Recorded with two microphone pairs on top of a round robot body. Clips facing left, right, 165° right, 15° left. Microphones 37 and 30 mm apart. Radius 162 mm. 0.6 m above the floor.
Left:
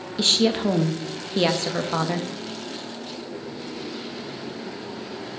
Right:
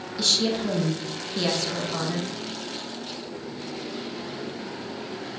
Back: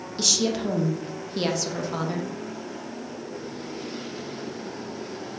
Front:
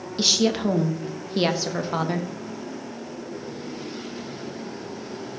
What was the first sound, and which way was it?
A woman speaking, 60° left.